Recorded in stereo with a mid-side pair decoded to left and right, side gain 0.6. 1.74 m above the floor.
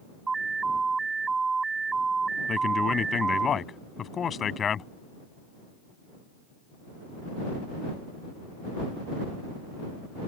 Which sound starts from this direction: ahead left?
A man speaking, at 2.5 s.